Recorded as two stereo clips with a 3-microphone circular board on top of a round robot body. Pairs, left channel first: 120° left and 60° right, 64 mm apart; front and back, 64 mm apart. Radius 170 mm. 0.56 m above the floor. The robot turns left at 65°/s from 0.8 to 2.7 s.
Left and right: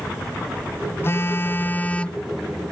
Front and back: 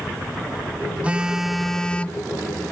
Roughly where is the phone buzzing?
Behind left.